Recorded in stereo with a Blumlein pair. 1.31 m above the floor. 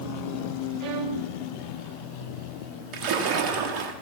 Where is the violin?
40° right, 1.3 m.